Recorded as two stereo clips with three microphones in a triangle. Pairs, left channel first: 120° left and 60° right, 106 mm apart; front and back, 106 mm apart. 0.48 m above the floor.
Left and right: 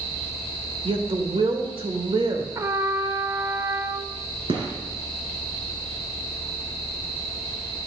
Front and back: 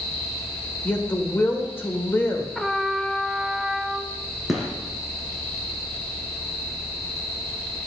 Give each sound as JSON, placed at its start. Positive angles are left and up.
{"t": 0.8, "sound": "a woman speaking", "azimuth_deg": -65, "distance_m": 1.4}
{"t": 2.5, "sound": "a trumpet", "azimuth_deg": -90, "distance_m": 0.6}
{"t": 4.5, "sound": "a gunshot", "azimuth_deg": -95, "distance_m": 2.5}